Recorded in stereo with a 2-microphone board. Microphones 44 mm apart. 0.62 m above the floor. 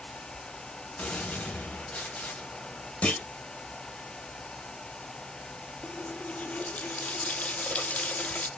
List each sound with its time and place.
1.0 s a gunshot: 30° left (ahead or behind), 1.3 m
3.0 s a clunk: 30° left (ahead or behind), 0.9 m
5.8 s a running tap: 35° left (ahead or behind), 0.6 m